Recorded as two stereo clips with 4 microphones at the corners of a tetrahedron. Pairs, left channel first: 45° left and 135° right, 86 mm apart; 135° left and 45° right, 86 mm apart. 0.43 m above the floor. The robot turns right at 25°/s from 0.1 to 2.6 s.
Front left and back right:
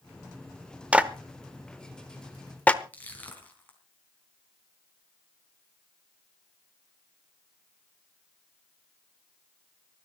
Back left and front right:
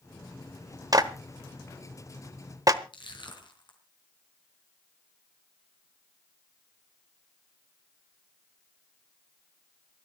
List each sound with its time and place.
0.9 s a clap: 65° right, 1.0 m; by 2.8 s 25° right, 1.0 m
2.9 s crushing: 115° left, 4 m